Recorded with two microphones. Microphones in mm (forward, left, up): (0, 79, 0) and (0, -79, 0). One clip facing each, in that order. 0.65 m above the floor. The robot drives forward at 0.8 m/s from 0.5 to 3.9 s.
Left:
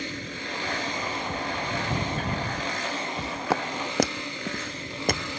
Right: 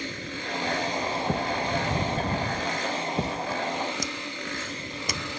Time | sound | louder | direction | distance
1.3 | a thud | right 4 dB | 65° right (ahead or behind) | ?
3.5 | footsteps | left 1 dB | 75° left (ahead or behind) | ?